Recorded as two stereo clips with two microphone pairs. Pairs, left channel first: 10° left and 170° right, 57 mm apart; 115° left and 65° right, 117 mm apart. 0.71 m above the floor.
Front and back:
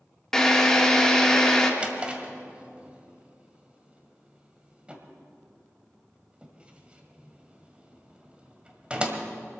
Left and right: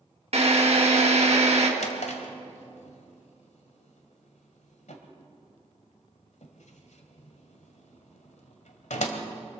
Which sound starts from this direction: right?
A drill, at 0.3 s.